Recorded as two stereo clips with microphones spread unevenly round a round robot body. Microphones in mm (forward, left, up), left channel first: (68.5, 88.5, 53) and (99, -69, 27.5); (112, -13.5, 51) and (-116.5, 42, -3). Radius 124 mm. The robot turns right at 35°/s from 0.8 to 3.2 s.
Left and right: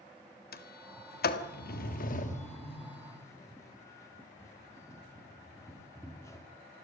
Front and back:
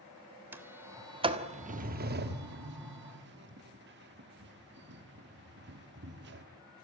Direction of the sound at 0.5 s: 95° left.